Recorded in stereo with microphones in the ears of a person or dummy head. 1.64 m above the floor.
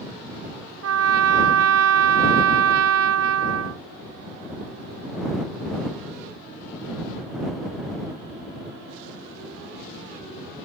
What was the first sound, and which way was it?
A trumpet, 85° right.